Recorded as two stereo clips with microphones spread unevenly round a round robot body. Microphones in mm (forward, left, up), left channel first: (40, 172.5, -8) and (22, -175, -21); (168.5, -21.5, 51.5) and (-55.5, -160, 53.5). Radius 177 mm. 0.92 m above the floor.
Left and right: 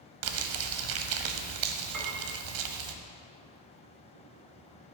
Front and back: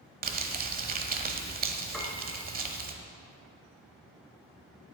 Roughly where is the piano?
Ahead right.